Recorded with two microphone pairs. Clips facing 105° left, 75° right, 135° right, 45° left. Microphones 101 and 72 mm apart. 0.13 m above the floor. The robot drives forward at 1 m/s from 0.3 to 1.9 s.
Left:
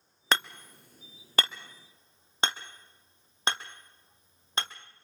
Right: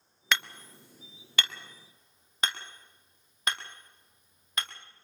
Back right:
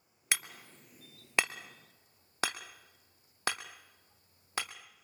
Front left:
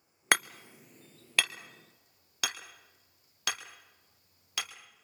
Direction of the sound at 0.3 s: 55° left.